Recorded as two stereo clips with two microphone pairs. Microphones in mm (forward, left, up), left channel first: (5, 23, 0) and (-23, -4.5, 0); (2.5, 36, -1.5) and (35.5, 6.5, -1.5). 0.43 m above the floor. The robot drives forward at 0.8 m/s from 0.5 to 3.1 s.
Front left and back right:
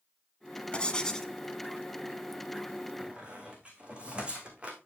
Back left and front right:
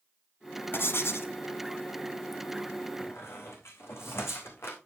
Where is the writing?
105° left, 1.6 m; by 1.3 s 120° left, 1.8 m.